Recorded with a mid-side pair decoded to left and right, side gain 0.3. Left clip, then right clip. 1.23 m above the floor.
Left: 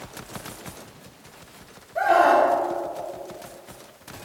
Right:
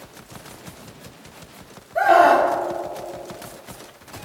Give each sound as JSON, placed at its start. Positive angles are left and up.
{"t": 1.9, "sound": "a scream", "azimuth_deg": -50, "distance_m": 3.5}